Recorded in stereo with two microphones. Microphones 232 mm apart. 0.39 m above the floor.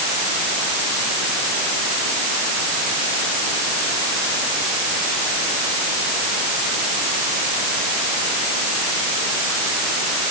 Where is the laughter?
I don't hear laughter.